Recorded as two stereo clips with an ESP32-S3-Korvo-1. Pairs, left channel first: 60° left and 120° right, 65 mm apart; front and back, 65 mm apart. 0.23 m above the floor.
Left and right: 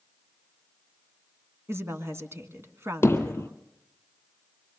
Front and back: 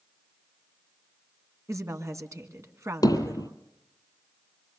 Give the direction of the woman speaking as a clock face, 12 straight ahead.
5 o'clock.